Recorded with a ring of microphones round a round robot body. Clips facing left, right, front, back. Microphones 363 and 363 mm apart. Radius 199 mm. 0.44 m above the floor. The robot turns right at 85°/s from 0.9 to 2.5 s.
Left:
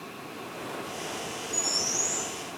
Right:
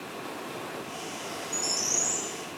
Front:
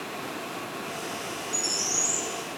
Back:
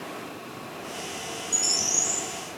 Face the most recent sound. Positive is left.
turn(degrees=-60)